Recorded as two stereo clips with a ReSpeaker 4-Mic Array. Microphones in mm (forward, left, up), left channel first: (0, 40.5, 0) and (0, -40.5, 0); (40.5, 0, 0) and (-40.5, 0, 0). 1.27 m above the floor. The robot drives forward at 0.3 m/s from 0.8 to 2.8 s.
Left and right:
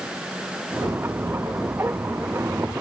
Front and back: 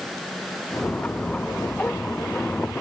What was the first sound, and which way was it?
Only background noise.